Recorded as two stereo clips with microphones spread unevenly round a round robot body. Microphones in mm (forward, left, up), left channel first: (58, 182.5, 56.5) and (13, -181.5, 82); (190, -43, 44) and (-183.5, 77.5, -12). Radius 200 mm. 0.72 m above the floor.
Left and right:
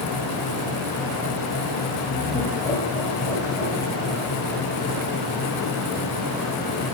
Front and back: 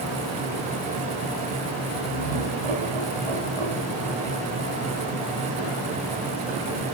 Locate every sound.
2.0 s laughter: 170° left, 3.5 m; by 4.5 s 150° left, 4 m